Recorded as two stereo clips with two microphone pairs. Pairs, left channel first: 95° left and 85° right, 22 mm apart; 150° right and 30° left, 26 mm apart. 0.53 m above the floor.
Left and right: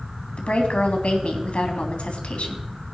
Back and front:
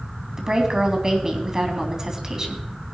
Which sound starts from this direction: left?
A woman speaking, at 0.4 s.